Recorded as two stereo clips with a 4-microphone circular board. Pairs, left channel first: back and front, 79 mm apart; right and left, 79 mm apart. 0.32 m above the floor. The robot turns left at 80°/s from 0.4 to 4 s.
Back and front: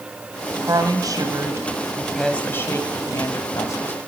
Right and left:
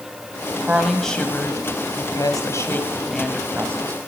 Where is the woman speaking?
30° left, 2.0 m; by 3.9 s 125° left, 2.0 m.